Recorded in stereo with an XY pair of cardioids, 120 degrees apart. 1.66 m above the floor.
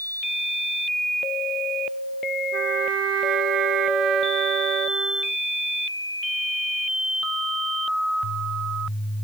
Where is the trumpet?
65° right.